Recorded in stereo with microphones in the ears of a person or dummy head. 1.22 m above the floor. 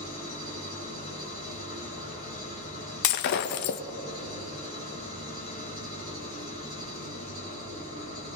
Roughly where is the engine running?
Left.